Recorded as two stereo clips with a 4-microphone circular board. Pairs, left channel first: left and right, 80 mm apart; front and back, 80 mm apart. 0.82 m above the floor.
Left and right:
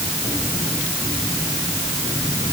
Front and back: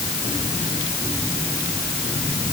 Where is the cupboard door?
No cupboard door in this recording.